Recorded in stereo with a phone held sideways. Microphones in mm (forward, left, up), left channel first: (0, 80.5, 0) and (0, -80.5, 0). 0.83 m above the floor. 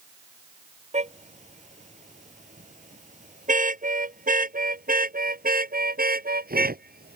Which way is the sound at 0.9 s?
45° right (ahead or behind).